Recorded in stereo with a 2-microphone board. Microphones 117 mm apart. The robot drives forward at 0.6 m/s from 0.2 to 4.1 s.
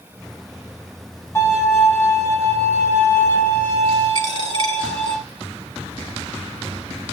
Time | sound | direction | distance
1.4 | a violin | 20° left (ahead or behind) | 6 m
4.2 | a dropped coin | 40° right (ahead or behind) | 3 m